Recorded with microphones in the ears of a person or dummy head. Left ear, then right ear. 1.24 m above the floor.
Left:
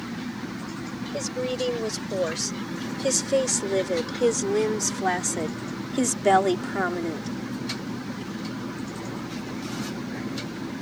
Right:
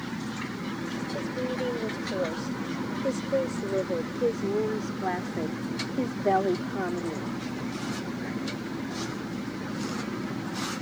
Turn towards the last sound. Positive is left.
turn(degrees=55)  # may be behind; listen again after turning